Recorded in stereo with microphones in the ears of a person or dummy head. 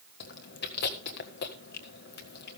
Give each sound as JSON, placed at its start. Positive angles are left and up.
{"t": 0.2, "sound": "chewing", "side_deg": 55, "distance_m": 1.7}